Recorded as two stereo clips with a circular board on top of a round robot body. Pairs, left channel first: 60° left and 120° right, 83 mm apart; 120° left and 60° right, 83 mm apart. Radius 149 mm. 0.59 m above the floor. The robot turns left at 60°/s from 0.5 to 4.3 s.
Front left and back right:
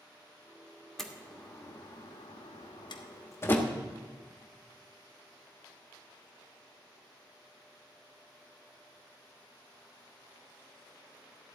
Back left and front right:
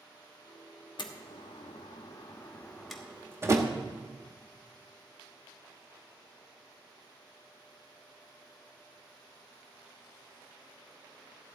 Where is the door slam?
145° left, 1.2 m; by 3.7 s 15° right, 1.2 m.